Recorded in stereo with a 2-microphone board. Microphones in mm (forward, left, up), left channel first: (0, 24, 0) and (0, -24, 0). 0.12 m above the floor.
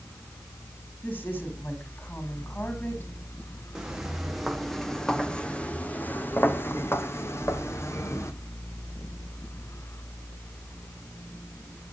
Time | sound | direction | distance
1.0 | a woman speaking | 50° left (ahead or behind) | 7 m
3.8 | footsteps | 10° right (ahead or behind) | 2 m